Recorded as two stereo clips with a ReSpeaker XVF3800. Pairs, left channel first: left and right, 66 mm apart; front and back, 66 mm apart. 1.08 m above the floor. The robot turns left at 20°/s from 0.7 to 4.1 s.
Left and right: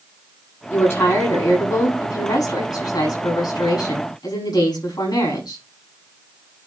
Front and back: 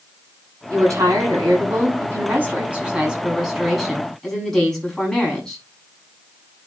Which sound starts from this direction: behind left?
A woman speaking, at 0.7 s.